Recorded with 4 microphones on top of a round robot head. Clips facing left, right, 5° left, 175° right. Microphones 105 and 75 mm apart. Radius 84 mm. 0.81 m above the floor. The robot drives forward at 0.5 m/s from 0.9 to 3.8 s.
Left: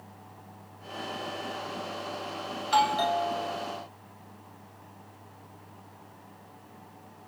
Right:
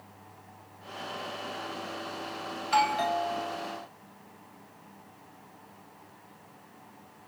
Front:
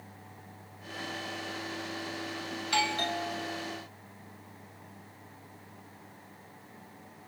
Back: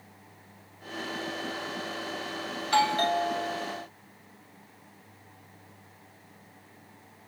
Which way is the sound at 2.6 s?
160° left.